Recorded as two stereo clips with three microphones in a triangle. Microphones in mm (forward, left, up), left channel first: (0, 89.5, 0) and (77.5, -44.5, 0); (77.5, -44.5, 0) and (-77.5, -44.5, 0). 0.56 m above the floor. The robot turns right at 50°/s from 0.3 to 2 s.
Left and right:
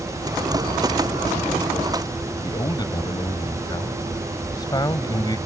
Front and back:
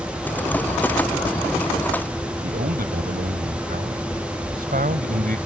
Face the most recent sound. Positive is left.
turn(degrees=180)